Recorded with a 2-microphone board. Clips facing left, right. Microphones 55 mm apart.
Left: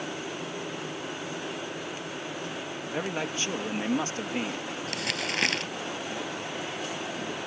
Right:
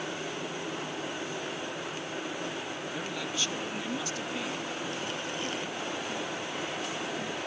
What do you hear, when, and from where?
2.9 s a man speaking: 35° left (ahead or behind)
4.9 s crumpling: 85° left